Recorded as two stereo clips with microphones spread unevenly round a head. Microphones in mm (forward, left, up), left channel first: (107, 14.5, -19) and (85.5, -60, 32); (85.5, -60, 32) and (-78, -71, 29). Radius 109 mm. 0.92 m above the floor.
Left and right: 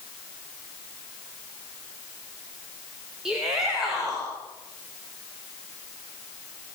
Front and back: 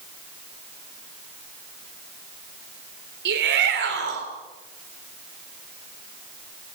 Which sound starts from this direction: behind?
A shout, at 3.2 s.